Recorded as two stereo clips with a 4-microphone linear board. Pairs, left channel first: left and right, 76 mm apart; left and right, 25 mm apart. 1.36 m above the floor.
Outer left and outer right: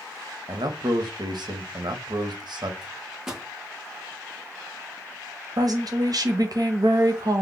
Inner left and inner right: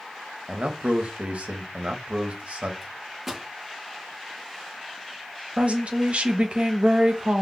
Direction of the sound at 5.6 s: 55° right (ahead or behind).